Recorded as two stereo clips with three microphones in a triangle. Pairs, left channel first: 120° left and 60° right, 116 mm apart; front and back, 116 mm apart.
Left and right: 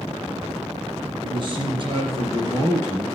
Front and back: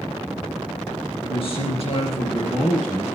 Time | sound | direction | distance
1.2 | a man speaking | 25° right | 3 m